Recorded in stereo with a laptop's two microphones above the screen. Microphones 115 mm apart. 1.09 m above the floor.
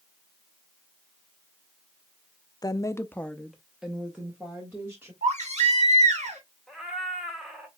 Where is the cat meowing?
5° right (ahead or behind), 1.1 m.